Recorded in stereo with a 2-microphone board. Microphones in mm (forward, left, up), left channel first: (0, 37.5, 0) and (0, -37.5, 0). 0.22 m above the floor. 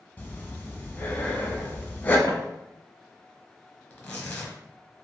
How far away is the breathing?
About 0.6 m.